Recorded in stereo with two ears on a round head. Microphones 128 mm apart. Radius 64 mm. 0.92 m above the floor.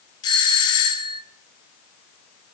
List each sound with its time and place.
0.2 s a doorbell: 30° left (ahead or behind), 0.8 m